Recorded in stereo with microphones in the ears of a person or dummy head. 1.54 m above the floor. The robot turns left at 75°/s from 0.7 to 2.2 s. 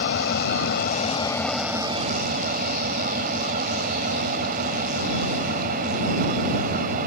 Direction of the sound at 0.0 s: 65° left.